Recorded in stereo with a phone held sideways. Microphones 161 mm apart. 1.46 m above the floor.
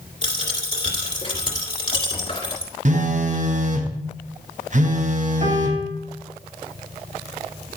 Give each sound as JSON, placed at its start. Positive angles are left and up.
{"t": 0.2, "sound": "a dropped coin", "side_deg": 30, "distance_m": 2.5}
{"t": 2.9, "sound": "a phone buzzing", "side_deg": -50, "distance_m": 0.9}
{"t": 5.4, "sound": "a piano", "side_deg": -40, "distance_m": 2.5}